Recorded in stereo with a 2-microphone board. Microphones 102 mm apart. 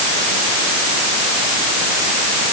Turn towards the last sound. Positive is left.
No sound to turn to.